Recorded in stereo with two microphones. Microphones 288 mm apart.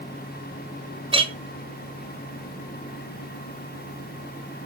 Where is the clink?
20° right (ahead or behind), 0.8 m.